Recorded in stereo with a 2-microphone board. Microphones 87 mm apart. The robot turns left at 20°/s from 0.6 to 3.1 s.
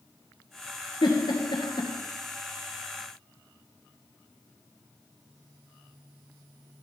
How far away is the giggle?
About 2.0 m.